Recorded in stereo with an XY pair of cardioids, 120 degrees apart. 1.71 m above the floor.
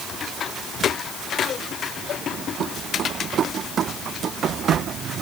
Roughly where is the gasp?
I don't hear a gasp.